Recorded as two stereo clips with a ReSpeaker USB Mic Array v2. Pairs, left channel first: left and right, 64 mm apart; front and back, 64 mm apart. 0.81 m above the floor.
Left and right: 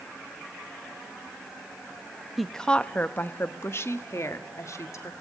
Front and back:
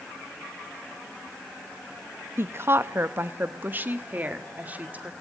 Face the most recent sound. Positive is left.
turn(degrees=120)